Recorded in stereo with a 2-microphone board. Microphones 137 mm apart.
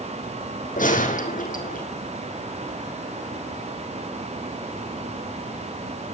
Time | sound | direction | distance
0.8 | a gunshot | 80° left | 4 m